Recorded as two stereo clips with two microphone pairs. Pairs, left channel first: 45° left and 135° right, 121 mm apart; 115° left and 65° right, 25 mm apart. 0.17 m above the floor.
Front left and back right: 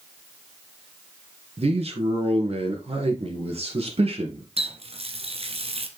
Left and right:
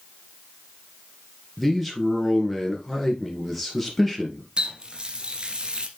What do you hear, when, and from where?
1.6 s a man speaking: 155° right, 3.5 m
4.6 s a running tap: 115° right, 1.4 m